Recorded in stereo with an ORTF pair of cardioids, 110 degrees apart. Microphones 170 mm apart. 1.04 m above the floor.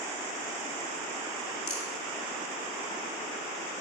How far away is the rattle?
About 2.5 m.